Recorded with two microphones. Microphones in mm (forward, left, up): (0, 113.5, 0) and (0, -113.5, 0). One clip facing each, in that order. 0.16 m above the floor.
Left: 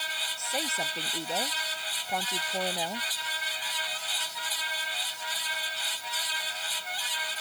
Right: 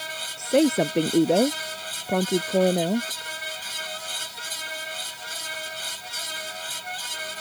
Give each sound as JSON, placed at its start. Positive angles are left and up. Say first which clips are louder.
{"t": 0.4, "sound": "a woman speaking", "louder": "right 18 dB", "side_deg": -70}